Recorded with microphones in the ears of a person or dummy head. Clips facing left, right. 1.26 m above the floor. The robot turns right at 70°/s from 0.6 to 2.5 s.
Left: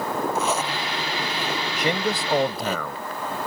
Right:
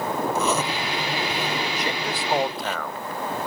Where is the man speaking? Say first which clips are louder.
Left 4 dB; 45° left; by 3.0 s 100° left.